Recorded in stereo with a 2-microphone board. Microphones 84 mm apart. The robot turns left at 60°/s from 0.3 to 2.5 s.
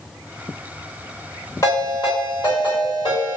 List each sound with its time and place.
1.6 s a ringtone: 145° left, 1.5 m; by 3.4 s 90° left, 1.5 m